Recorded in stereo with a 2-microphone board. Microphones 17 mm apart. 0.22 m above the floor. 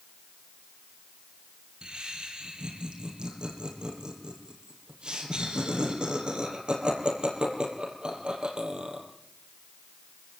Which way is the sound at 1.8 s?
45° right (ahead or behind).